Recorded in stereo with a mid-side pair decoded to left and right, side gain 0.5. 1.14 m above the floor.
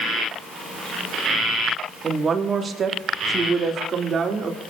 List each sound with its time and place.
2.0 s a woman speaking: 30° right, 2.5 m; by 4.6 s 45° right, 3.5 m